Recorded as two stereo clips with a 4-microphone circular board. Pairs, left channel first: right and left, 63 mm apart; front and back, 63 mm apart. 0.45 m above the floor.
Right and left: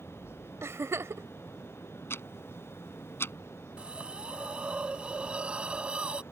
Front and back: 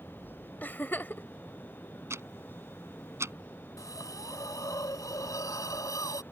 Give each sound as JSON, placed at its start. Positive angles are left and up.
{"t": 0.6, "sound": "a giggle", "azimuth_deg": 55}
{"t": 2.1, "sound": "ticking", "azimuth_deg": -135}
{"t": 3.8, "sound": "a hiss", "azimuth_deg": 20}